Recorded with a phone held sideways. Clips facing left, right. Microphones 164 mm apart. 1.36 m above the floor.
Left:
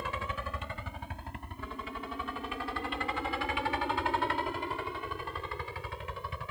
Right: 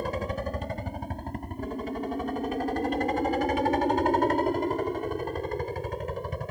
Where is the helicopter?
40° right (ahead or behind); by 6.5 s 45° right (ahead or behind).